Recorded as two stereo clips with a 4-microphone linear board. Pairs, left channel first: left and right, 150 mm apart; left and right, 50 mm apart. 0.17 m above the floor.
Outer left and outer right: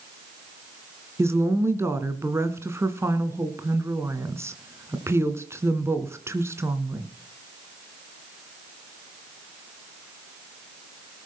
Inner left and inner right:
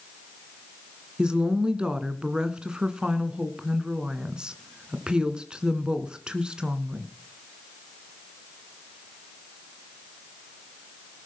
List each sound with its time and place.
1.2 s a woman speaking: 15° right (ahead or behind), 2 m